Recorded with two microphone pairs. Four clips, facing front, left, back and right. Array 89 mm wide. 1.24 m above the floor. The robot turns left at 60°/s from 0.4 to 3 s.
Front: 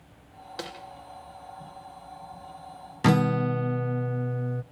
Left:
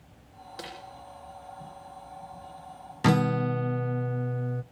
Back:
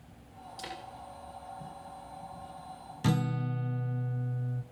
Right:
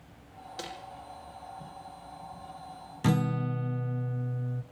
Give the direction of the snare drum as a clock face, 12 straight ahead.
12 o'clock.